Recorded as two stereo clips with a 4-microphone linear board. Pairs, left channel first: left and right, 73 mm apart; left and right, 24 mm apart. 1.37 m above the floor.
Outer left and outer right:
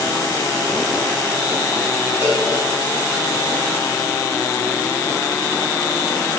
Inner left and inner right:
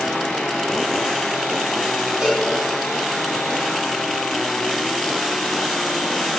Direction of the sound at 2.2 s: 35° right (ahead or behind).